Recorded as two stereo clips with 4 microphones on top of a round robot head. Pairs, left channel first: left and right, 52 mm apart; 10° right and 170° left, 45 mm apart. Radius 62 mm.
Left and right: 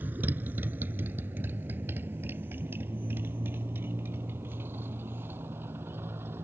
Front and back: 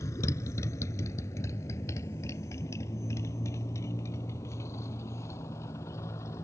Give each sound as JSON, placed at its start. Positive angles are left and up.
{"t": 0.0, "sound": "a motorcycle", "azimuth_deg": -30}